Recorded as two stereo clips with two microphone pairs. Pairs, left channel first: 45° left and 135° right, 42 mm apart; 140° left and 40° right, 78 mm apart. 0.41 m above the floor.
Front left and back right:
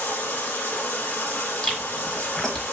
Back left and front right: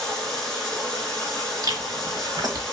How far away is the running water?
About 1.3 m.